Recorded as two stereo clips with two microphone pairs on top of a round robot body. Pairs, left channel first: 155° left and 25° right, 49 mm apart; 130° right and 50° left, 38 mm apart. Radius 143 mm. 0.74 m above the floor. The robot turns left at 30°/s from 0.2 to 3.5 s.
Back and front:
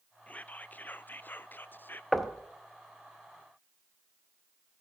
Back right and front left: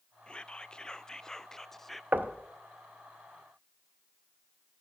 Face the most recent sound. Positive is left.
turn(degrees=25)